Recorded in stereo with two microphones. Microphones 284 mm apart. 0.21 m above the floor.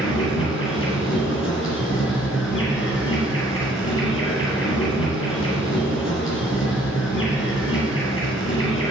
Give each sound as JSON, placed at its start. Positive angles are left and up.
{"t": 0.0, "sound": "an insect", "side_deg": 45, "distance_m": 2.0}